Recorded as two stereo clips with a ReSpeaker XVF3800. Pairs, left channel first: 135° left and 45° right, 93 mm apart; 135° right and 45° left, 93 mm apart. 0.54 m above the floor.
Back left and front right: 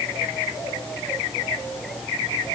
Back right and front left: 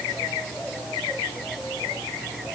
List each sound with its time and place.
Only background noise.